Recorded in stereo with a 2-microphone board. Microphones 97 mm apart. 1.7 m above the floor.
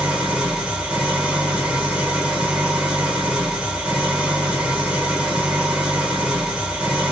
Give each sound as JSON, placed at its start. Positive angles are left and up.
{"t": 0.0, "sound": "an engine running", "side_deg": -10, "distance_m": 1.1}